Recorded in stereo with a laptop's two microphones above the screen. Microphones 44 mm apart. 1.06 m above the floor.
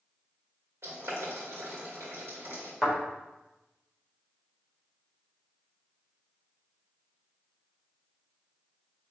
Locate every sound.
0.8 s boiling: 90° right, 1.9 m
2.8 s a thud: 5° right (ahead or behind), 1.7 m